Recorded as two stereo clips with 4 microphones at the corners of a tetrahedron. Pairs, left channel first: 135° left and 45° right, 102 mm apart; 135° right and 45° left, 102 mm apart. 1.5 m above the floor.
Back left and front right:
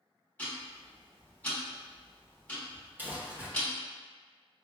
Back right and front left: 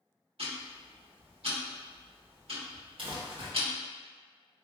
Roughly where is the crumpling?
Ahead left.